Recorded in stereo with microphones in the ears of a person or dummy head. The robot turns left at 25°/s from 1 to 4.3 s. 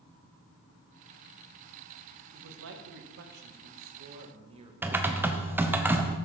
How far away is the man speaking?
About 1.5 m.